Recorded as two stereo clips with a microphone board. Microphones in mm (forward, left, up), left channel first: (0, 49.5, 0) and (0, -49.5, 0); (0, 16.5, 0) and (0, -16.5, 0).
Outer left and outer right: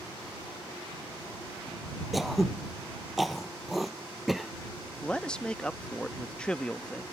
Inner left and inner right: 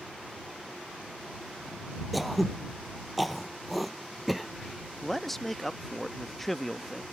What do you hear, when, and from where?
2.1 s throat clearing: centre (ahead or behind)
5.0 s a man speaking: 10° left (ahead or behind)